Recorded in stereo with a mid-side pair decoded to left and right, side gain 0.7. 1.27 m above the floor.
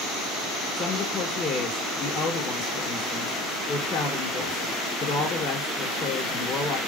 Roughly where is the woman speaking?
Ahead left.